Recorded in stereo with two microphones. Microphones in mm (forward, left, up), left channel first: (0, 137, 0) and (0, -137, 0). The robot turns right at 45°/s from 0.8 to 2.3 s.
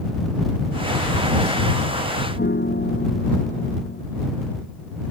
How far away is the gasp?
No gasp in this recording.